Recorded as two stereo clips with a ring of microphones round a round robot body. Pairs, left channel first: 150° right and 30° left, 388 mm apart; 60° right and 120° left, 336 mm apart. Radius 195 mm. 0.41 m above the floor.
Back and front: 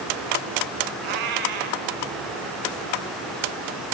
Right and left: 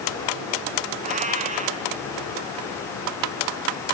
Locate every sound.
1.0 s a cat meowing: 50° left, 1.2 m